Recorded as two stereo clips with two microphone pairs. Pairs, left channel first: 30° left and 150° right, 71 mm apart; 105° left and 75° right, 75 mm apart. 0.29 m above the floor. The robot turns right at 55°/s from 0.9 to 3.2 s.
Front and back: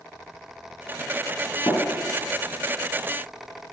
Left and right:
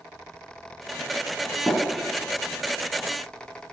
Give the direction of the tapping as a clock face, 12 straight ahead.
11 o'clock.